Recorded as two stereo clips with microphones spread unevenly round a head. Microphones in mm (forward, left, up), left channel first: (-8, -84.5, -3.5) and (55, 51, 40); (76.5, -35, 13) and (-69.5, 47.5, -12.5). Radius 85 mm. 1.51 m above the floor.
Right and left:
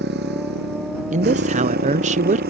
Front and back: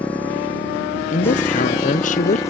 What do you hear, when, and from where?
0.0 s a motorcycle: 55° left; by 2.5 s 45° left
1.1 s a woman speaking: 20° left